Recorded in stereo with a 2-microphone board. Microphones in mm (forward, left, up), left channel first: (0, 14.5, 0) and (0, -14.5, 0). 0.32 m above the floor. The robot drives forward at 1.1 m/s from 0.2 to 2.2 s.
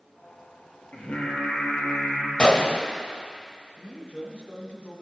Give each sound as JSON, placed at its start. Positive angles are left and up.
{"t": 0.9, "sound": "singing", "side_deg": 80, "distance_m": 3.5}
{"t": 2.4, "sound": "a gunshot", "side_deg": 40, "distance_m": 0.9}
{"t": 3.8, "sound": "a man speaking", "side_deg": 55, "distance_m": 5.5}